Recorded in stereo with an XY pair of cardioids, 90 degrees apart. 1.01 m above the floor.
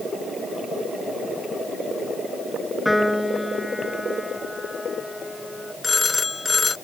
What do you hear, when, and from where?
2.9 s a piano: 5° left
5.8 s a phone ringing: 25° left